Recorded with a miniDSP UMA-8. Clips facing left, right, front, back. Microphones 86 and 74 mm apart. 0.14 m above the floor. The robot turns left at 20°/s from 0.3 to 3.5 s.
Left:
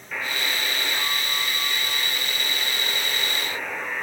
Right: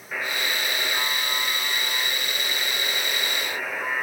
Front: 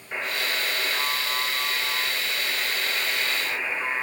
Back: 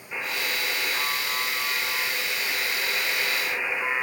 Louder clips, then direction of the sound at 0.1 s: Even, front 1 dB; 30° right.